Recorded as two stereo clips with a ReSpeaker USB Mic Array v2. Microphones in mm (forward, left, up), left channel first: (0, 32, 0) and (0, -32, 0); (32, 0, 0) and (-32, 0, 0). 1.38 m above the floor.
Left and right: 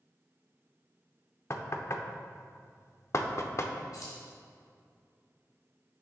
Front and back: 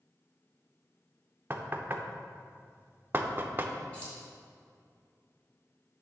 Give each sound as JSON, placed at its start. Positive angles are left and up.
{"t": 1.5, "sound": "knocking", "azimuth_deg": 125, "distance_m": 0.6}
{"t": 3.9, "sound": "keys jangling", "azimuth_deg": 75, "distance_m": 3.0}